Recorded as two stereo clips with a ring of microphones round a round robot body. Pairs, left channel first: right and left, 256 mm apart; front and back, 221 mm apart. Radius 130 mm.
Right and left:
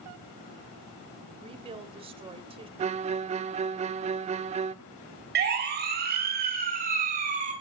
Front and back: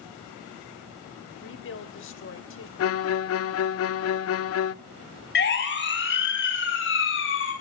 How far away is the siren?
About 5.5 m.